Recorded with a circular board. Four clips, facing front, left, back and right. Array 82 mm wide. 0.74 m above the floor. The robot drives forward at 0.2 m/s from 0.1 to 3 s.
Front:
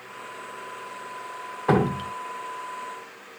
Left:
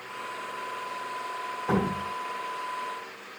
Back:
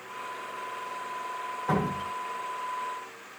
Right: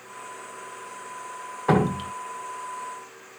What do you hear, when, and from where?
1.7 s dripping: 45° right, 0.6 m; by 2.1 s 55° right, 0.5 m